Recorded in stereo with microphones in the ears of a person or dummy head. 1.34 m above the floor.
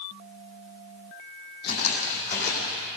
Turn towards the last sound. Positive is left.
turn(degrees=50)  # may be behind; listen again after turning